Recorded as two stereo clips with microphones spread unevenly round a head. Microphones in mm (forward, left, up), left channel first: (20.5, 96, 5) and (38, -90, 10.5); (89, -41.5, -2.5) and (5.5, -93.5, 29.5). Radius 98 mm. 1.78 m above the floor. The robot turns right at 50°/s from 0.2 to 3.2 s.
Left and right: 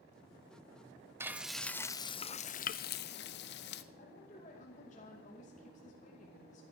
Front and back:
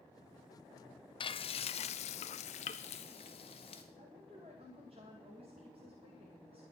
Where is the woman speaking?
150° left, 2.5 m.